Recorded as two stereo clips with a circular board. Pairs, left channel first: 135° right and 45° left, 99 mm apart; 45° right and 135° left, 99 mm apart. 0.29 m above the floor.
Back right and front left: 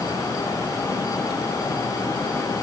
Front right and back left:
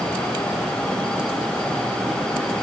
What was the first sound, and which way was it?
Only background noise.